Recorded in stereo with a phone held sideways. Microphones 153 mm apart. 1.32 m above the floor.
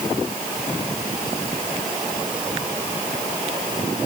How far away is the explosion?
I don't hear an explosion.